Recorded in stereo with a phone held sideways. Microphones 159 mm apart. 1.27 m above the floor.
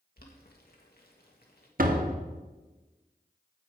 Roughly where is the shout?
I don't hear a shout.